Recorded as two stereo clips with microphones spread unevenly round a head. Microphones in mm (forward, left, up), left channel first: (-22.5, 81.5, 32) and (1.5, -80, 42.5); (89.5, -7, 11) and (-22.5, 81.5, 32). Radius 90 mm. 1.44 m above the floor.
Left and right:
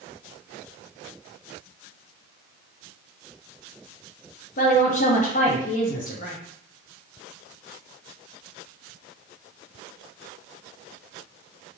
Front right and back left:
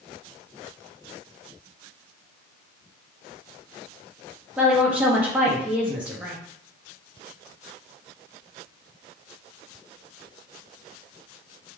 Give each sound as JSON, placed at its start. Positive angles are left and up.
{"t": 4.6, "sound": "a woman speaking", "azimuth_deg": 60, "distance_m": 0.6}